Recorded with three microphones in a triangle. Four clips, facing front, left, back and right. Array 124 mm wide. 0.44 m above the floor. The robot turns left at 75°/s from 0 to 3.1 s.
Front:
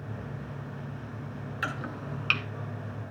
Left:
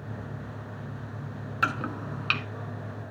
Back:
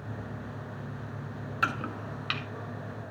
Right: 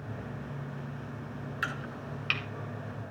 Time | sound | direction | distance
1.6 | chopping | 120° left | 1.0 m